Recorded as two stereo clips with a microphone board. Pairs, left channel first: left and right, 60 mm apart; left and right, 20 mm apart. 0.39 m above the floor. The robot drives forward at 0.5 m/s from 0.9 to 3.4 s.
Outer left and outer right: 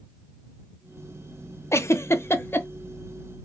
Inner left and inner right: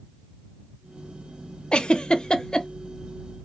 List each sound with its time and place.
1.7 s a giggle: 50° left (ahead or behind), 0.6 m; by 2.7 s 40° left (ahead or behind), 0.7 m